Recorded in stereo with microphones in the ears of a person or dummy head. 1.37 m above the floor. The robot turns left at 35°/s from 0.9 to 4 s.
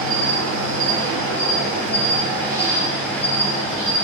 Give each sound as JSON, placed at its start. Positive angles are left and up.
{"t": 0.0, "sound": "an insect", "azimuth_deg": -105, "distance_m": 0.9}